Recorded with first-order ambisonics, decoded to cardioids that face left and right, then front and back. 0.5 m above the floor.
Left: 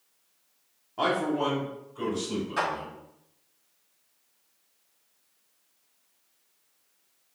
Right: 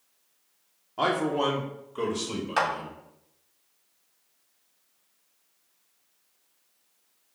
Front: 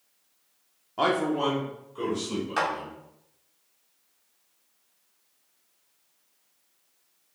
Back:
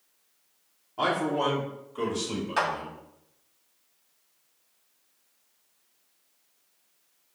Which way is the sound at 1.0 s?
10° right.